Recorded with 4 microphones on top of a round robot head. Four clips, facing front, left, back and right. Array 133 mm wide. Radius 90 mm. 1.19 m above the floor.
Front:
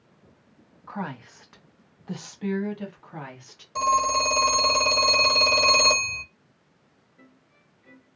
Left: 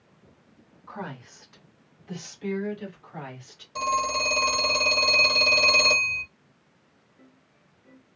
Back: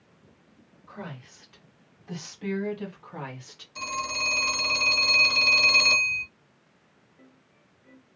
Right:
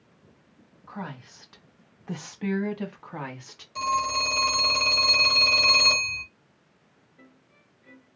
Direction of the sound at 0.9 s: 5° left.